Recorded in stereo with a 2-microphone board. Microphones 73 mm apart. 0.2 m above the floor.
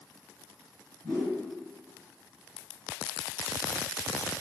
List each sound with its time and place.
1.0 s a whoosh: 25° left (ahead or behind), 1.2 m